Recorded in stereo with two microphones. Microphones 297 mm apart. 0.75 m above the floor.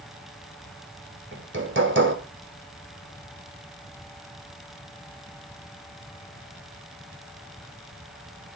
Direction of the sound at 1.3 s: 40° right (ahead or behind).